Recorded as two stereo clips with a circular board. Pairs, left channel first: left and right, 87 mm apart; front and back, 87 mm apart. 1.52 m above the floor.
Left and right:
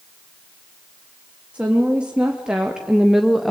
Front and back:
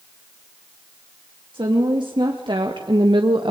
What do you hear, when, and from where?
1.5 s a woman speaking: 165° right, 3 m; by 3.5 s straight behind, 1.1 m